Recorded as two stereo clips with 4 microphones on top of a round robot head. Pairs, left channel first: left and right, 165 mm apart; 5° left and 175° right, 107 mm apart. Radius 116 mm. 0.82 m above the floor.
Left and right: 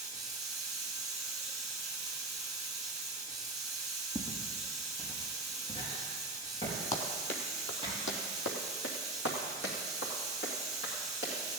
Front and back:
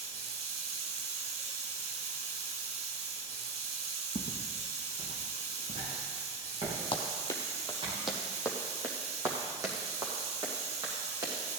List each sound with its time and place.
0.0 s running water: straight behind, 1.5 m
4.2 s footsteps: 175° left, 1.6 m; by 7.9 s 150° left, 7 m
6.9 s running footsteps: 45° left, 1.6 m; by 11.3 s 135° left, 5 m